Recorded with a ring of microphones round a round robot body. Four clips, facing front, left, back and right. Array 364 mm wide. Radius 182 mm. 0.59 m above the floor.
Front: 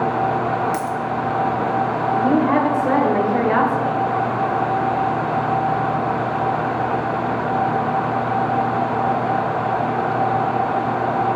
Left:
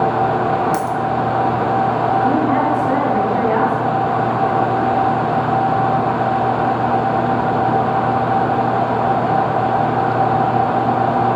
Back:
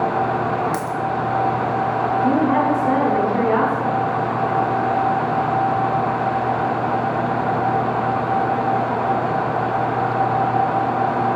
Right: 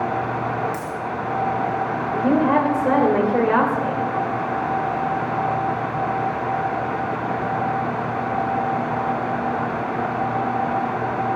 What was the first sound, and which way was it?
A dropped coin, 100° left.